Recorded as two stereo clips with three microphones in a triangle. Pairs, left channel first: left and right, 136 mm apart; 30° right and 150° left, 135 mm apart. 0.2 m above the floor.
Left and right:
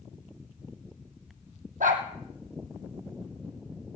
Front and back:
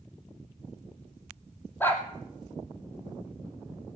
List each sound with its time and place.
1.8 s a dog barking: 105° right, 2.5 m